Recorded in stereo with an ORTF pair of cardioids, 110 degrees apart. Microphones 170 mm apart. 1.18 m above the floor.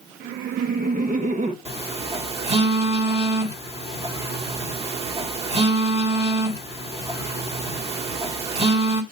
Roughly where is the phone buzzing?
Ahead right.